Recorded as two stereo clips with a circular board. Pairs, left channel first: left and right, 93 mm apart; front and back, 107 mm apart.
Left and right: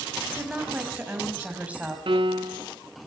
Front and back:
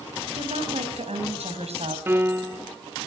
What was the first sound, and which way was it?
A woman speaking, 165° right.